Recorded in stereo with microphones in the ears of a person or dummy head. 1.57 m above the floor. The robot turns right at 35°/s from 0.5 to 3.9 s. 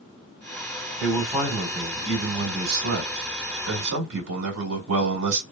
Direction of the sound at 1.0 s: 175° right.